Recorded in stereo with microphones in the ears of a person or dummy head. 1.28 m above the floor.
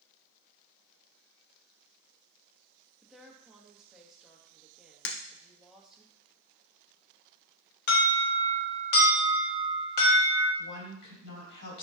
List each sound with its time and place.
3.0 s a woman speaking: 5° right (ahead or behind), 1.4 m
5.0 s breaking glass: 60° left (ahead or behind), 1.0 m
7.9 s an alarm: 55° left (ahead or behind), 1.7 m
10.6 s a woman speaking: 60° left (ahead or behind), 3.5 m